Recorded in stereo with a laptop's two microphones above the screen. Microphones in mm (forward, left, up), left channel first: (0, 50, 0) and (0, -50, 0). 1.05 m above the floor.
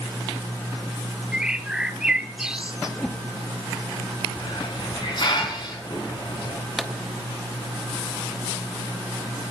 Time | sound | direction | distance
1.3 | a bird | 5° right (ahead or behind) | 0.8 m
3.0 | a whoosh | 5° left (ahead or behind) | 0.9 m
4.4 | a hiss | 50° left (ahead or behind) | 4.5 m
6.8 | a pop | centre (ahead or behind) | 0.7 m